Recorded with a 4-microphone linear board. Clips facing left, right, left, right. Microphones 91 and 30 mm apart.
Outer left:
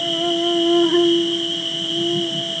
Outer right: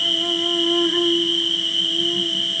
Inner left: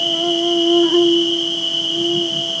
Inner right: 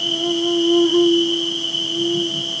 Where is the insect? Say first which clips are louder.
Outer left 5 dB, inner left 2 dB; 70° left (ahead or behind), 0.9 m.